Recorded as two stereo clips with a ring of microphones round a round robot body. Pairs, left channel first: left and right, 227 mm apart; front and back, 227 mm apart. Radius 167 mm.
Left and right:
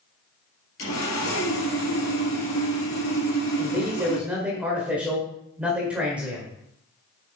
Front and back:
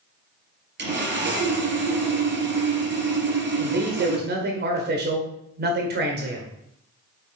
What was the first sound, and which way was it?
Sawing, 140° left.